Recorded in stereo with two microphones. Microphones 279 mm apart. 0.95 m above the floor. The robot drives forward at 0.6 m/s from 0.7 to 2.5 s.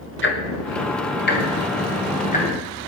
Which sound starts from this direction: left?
Ticking, at 0.2 s.